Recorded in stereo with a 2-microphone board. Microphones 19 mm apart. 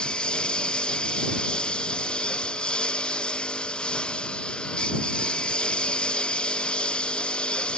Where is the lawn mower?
60° left (ahead or behind); by 7.8 s 70° left (ahead or behind).